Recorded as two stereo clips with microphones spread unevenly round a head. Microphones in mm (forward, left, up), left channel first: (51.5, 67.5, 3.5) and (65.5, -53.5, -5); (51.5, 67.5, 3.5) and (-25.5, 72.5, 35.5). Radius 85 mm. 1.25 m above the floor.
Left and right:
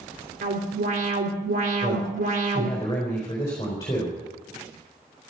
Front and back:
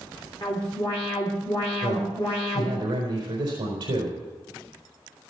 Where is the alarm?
75° right, 3 m.